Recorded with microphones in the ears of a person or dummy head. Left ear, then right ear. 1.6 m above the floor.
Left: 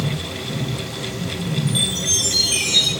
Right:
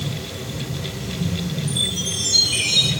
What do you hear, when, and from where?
1.7 s a chime: 60° left (ahead or behind), 3 m